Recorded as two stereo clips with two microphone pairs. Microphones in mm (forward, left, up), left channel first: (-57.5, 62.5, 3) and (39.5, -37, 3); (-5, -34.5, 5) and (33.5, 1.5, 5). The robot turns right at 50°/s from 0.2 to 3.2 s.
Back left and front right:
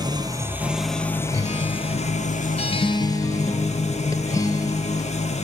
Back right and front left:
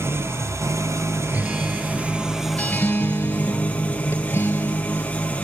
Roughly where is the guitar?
Left.